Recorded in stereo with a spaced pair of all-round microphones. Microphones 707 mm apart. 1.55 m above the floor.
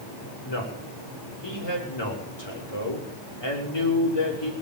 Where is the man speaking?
35° left (ahead or behind), 5.5 m.